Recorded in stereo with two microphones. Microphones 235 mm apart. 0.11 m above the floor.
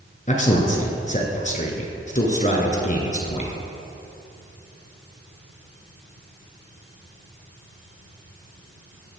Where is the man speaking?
35° left (ahead or behind), 1.3 m.